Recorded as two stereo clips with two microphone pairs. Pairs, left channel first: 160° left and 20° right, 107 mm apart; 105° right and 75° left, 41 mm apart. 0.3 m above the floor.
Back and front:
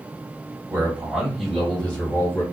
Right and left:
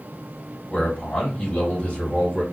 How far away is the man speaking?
About 1.4 m.